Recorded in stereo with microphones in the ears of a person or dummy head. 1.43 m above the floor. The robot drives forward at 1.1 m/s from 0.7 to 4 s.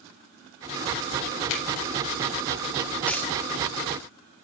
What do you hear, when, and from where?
1.5 s a finger snap: 70° left (ahead or behind), 4 m
3.1 s a dropped coin: 5° left (ahead or behind), 1.2 m